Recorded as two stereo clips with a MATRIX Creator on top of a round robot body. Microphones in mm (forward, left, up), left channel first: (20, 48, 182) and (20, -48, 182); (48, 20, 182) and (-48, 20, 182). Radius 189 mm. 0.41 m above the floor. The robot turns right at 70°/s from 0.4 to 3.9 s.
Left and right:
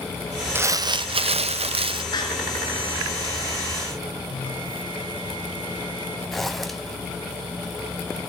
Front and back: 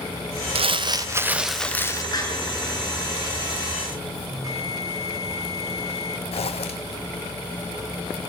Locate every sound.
0.6 s crumpling: 160° right, 0.7 m; by 2.0 s 55° right, 0.7 m
2.1 s a door slam: 50° left, 7 m; by 2.3 s 60° left, 7 m
4.3 s a bell: 130° left, 3 m
6.3 s a zipper: straight ahead, 1.2 m